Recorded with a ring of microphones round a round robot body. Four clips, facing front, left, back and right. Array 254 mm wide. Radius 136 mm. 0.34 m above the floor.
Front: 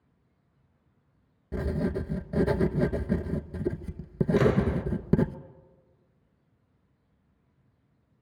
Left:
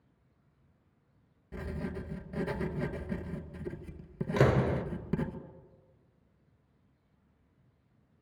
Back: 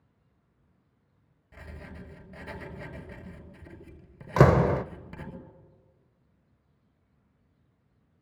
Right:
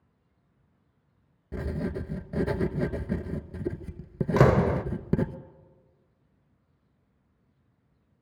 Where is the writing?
30° right, 1.0 m.